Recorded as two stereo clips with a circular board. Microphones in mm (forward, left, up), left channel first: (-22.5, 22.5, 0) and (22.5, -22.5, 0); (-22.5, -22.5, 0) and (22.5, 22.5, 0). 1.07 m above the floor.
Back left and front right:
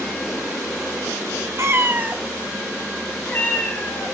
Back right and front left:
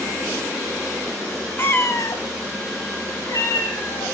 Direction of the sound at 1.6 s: 85° right.